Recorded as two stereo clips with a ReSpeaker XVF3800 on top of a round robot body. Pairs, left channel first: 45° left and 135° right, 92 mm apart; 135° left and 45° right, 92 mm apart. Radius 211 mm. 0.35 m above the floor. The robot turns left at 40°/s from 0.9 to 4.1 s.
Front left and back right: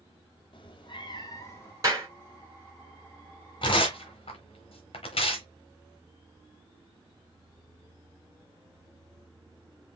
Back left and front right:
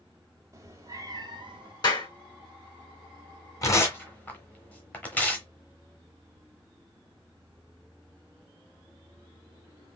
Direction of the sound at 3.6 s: 80° left.